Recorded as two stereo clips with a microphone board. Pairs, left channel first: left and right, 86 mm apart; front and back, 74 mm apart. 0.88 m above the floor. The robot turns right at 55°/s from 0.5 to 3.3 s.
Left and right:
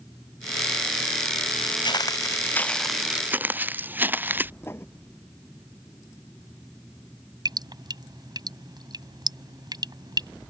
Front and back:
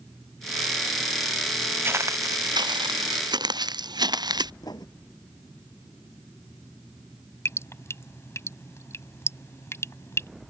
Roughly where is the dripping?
Ahead right.